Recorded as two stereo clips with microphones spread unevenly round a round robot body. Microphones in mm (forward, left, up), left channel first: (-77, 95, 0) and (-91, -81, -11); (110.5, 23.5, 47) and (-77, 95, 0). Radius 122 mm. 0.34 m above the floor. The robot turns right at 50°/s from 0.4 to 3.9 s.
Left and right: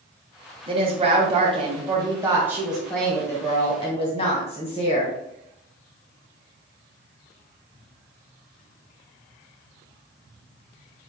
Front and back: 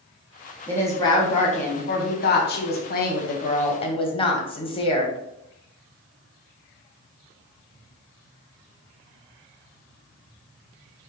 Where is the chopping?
No chopping in this recording.